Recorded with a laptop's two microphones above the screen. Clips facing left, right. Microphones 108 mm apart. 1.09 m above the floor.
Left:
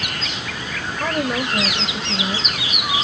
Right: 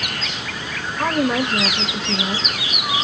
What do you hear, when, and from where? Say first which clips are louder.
1.0 s a woman speaking: right 3 dB; 85° right, 1.6 m